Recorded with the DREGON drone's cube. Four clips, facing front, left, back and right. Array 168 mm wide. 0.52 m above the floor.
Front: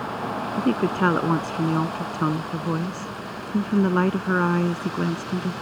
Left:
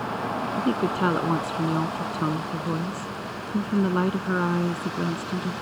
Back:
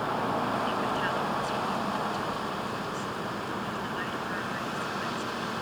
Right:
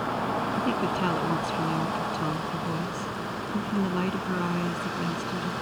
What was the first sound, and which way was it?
A woman speaking, 20° left.